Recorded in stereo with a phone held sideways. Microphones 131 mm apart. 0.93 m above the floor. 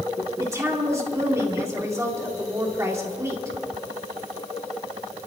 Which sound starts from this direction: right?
A woman speaking, at 0.4 s.